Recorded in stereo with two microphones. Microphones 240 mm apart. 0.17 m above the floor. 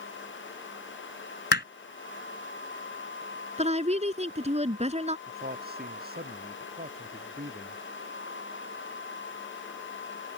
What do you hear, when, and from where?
1.5 s hammering: 45° left (ahead or behind)
3.6 s a woman speaking: 25° right (ahead or behind)
5.3 s a man speaking: 40° right (ahead or behind)